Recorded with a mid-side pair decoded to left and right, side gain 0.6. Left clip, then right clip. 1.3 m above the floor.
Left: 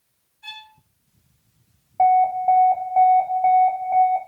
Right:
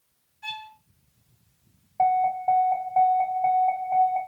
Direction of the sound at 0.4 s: 40° right.